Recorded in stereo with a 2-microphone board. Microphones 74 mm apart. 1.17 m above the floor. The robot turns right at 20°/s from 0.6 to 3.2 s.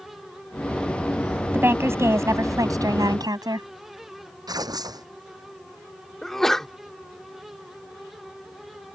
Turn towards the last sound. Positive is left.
turn(degrees=5)  # may be behind; listen again after turning